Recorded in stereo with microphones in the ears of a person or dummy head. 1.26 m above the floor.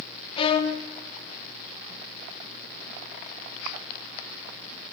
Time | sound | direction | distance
0.4 | a violin | 25° left (ahead or behind) | 0.5 m